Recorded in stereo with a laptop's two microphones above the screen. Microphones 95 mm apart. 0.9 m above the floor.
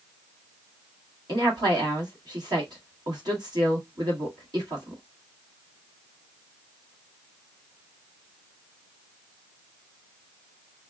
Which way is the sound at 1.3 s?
50° right (ahead or behind).